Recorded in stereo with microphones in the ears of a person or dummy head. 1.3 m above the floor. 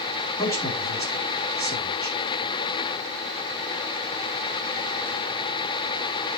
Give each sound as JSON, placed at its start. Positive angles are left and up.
{"t": 0.4, "sound": "a man speaking", "side_deg": 15, "distance_m": 4.0}